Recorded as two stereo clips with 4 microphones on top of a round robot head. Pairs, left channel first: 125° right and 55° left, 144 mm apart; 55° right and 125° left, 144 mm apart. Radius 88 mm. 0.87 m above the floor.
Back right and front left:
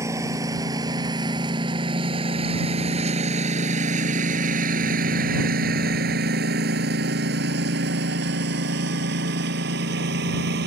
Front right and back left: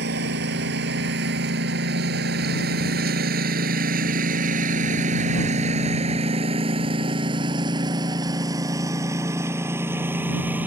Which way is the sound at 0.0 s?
125° left.